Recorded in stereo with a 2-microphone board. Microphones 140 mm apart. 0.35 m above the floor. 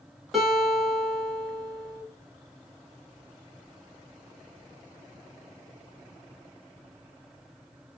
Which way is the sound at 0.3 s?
Centre (ahead or behind).